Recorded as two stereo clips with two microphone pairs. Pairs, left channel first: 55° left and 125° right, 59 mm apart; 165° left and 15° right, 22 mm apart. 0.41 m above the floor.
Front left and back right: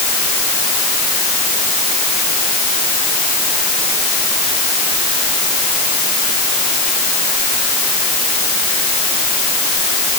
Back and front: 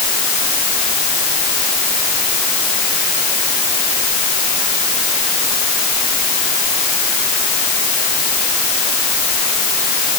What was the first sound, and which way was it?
Only background noise.